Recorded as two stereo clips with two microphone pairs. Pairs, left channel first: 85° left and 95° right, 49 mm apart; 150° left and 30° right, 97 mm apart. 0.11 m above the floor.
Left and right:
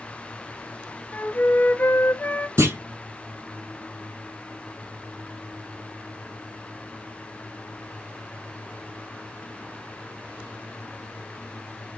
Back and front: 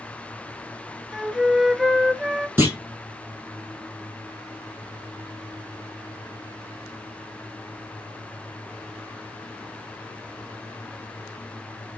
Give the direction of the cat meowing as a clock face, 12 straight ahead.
I don't hear a cat meowing.